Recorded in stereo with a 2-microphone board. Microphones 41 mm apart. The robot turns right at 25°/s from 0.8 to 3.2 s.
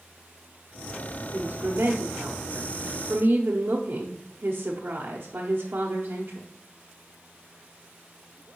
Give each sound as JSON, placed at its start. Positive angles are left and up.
{"t": 1.3, "sound": "a woman speaking", "azimuth_deg": -115, "distance_m": 1.1}